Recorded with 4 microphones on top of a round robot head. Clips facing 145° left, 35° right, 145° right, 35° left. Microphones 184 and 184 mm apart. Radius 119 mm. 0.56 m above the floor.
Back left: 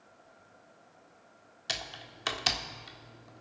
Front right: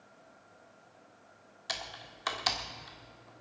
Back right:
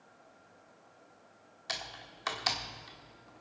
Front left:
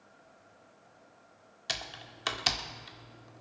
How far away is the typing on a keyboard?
About 1.6 m.